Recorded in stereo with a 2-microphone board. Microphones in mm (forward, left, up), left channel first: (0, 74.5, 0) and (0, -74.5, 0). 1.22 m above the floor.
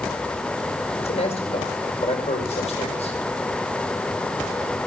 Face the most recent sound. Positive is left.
turn(degrees=45)  # may be behind; listen again after turning